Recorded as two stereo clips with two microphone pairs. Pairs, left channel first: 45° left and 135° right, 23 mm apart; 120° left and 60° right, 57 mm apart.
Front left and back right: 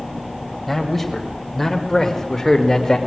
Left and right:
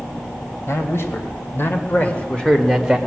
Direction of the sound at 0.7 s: 125° left.